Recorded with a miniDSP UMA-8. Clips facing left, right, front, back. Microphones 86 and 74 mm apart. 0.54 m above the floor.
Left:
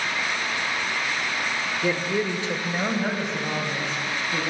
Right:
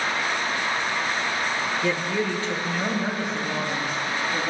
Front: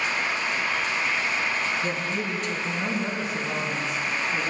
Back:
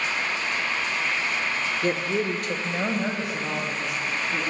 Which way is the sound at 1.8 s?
170° left.